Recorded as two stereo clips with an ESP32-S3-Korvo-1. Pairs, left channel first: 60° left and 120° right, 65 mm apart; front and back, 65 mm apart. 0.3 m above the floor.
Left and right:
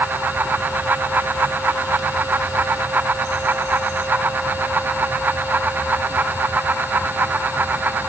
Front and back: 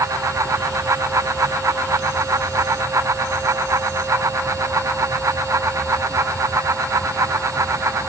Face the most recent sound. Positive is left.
No sound to turn to.